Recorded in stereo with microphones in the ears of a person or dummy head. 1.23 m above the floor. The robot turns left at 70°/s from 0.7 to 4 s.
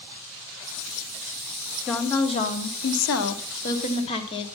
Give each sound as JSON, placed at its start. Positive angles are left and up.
{"t": 1.9, "sound": "a woman speaking", "azimuth_deg": 180, "distance_m": 1.0}